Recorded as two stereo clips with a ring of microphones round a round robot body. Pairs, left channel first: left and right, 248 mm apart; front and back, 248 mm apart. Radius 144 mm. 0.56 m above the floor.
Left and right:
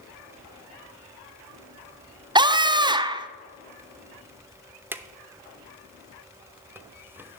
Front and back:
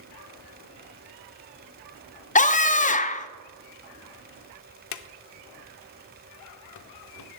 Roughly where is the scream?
Ahead right.